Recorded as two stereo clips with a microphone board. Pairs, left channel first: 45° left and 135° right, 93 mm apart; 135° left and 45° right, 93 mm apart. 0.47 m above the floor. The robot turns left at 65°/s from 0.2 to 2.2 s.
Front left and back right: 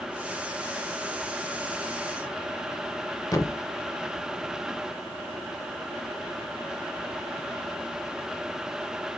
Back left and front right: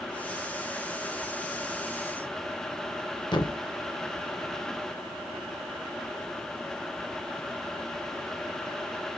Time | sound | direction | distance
3.3 | a thud | 100° left | 0.6 m